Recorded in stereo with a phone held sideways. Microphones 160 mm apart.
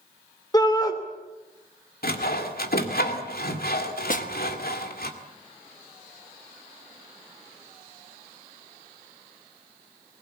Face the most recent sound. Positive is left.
turn(degrees=55)  # may be behind; listen again after turning